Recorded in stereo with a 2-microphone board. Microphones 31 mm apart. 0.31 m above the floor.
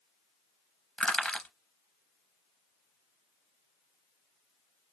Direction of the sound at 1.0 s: 35° left (ahead or behind).